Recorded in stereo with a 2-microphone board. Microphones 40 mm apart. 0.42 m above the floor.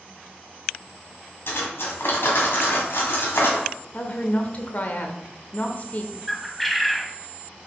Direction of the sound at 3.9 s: 40° left (ahead or behind).